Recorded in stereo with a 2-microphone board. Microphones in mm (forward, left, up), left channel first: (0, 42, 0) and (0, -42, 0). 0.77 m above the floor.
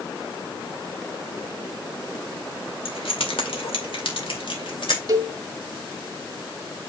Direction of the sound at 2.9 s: 80° left.